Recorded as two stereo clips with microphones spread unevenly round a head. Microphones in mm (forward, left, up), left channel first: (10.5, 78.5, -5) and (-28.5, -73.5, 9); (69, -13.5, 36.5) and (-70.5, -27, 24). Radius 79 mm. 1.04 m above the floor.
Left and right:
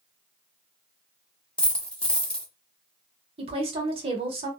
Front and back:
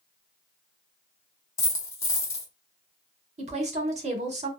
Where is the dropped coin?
10° right, 0.6 m.